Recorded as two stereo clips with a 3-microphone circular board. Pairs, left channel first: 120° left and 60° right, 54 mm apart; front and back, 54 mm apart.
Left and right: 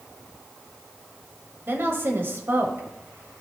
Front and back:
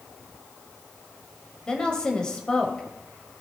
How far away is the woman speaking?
About 1.5 m.